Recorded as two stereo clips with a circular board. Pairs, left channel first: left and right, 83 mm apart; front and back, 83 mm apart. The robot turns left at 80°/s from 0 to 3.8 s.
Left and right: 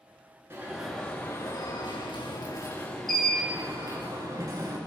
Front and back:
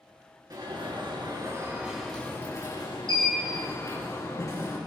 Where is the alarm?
150° right, 7 m; by 4.8 s 50° right, 7 m.